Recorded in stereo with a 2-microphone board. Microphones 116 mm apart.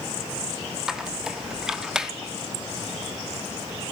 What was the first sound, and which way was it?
A squeak, 5° right (ahead or behind).